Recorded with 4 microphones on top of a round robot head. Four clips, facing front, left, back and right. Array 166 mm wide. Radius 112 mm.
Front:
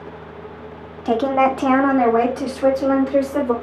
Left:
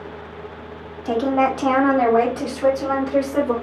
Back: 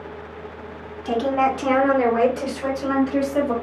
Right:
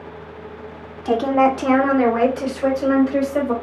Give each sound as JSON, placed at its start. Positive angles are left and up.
{"t": 1.1, "sound": "a woman speaking", "azimuth_deg": -10, "distance_m": 1.4}